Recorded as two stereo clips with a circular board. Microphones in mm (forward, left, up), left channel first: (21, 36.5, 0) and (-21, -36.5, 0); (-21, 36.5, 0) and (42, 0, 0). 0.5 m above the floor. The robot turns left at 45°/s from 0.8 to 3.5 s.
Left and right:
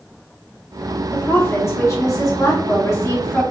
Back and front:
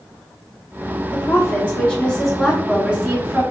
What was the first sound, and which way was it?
A woman speaking, 115° left.